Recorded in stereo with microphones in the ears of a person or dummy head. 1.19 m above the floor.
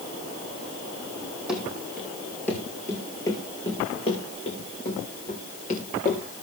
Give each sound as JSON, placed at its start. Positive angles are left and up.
{"t": 1.5, "sound": "running footsteps", "side_deg": -10, "distance_m": 3.5}